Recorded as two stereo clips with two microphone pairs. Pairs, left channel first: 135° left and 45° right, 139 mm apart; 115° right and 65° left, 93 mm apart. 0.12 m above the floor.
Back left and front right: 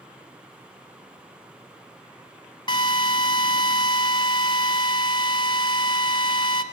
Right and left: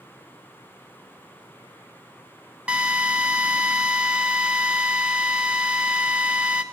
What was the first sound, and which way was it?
A drill, 135° left.